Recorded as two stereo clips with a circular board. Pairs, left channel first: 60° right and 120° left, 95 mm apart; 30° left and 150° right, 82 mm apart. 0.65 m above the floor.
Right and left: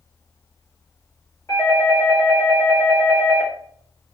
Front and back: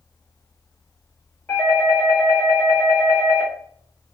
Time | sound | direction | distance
1.5 | a doorbell | 35° right | 1.7 m